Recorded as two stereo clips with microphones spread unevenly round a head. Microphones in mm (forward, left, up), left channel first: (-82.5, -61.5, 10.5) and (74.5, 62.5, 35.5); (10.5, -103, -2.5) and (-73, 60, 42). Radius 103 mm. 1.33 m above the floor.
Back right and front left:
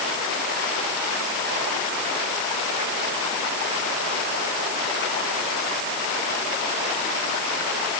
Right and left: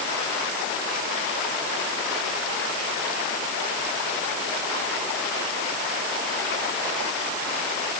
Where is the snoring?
No snoring in this recording.